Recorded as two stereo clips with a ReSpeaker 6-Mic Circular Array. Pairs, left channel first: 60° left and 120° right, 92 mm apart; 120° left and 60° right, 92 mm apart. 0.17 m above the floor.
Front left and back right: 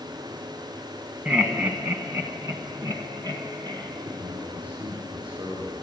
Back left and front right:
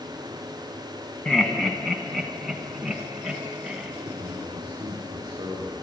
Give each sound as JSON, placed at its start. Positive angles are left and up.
{"t": 1.2, "sound": "laughter", "azimuth_deg": -175, "distance_m": 1.2}
{"t": 4.0, "sound": "a man speaking", "azimuth_deg": -100, "distance_m": 6.0}